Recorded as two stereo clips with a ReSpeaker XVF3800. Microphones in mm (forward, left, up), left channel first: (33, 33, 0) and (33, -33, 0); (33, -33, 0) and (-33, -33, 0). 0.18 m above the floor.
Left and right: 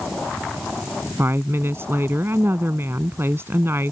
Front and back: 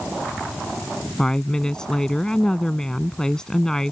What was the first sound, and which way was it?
A woman speaking, 75° right.